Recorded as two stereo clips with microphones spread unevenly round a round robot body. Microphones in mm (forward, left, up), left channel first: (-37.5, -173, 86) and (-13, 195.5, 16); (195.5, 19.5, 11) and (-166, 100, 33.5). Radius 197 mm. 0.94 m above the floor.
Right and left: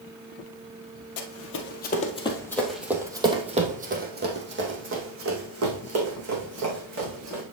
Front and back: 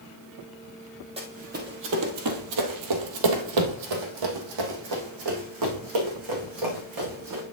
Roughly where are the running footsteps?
Behind right.